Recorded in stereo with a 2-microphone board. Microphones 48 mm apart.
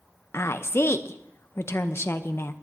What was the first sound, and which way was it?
A woman speaking, 55° left (ahead or behind).